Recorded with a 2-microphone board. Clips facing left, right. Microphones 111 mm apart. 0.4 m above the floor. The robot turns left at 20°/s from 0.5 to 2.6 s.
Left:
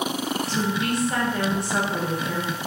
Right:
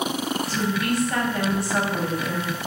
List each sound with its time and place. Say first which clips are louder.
0.5 s a woman speaking: even; 20° left (ahead or behind), 1.2 m